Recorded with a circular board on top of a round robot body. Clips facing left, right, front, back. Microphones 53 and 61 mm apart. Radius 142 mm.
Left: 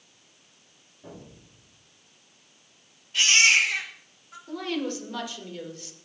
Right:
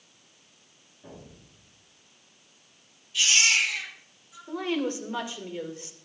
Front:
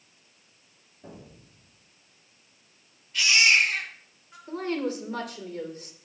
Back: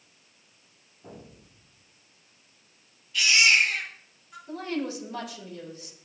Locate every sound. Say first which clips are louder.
1.0 s an explosion: left 2 dB, even; 5° left, 7 m
3.1 s a baby crying: left 4 dB, even; 55° left, 7 m
4.5 s a woman speaking: right 2 dB, front 2 dB; 30° right, 2.5 m